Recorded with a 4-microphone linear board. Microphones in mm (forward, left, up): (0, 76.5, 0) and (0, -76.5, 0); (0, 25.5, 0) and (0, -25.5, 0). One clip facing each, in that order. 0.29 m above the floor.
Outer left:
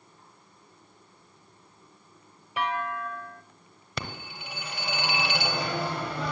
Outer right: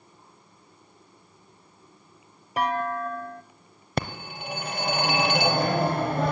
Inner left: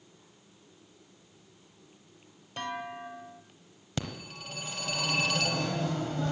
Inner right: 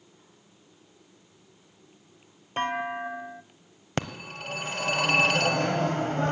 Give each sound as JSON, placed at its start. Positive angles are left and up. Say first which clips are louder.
{"t": 2.6, "sound": "a clunk", "louder": "outer right 4 dB, inner right 8 dB", "side_deg": -40, "distance_m": 0.5}
{"t": 4.0, "sound": "a phone ringing", "louder": "outer right 7 dB, inner right 5 dB", "side_deg": -50, "distance_m": 0.8}